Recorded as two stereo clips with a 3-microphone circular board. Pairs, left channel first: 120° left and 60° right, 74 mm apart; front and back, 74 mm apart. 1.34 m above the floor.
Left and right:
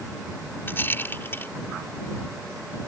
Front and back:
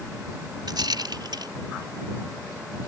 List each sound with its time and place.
0.7 s a rattle: straight behind